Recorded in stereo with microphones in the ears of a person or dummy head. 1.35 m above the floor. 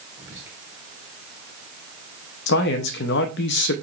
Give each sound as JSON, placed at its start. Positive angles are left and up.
{"t": 0.2, "sound": "whispering", "side_deg": -10, "distance_m": 1.5}
{"t": 2.5, "sound": "a man speaking", "side_deg": 65, "distance_m": 0.6}